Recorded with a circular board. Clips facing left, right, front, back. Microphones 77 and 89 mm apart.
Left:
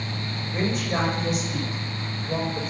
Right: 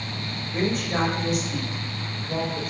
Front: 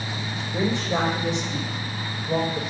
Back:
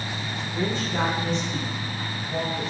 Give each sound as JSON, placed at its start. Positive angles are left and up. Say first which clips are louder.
{"t": 0.5, "sound": "a woman speaking", "louder": "right 1 dB, front 3 dB", "azimuth_deg": 0, "distance_m": 7.0}